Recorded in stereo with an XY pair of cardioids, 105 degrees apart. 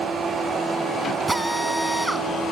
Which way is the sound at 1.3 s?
10° right.